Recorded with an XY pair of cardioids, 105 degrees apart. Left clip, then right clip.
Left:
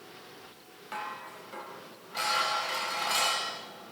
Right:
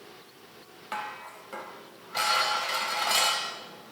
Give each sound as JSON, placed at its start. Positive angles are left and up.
{"t": 0.9, "sound": "dishes clattering", "azimuth_deg": -40, "distance_m": 4.0}